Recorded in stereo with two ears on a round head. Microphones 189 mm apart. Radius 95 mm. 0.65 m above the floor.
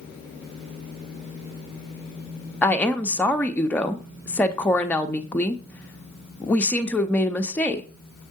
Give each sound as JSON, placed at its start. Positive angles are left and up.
{"t": 2.6, "sound": "a woman speaking", "side_deg": 5, "distance_m": 0.6}